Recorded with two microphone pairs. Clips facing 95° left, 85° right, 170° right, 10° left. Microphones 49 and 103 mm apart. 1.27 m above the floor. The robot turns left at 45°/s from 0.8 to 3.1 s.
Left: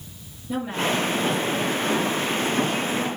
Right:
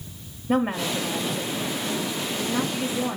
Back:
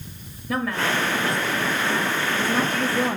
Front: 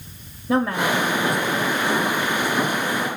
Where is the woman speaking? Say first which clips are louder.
Right 1 dB, front 4 dB; 55° right, 3 m; by 3.2 s 160° right, 3 m.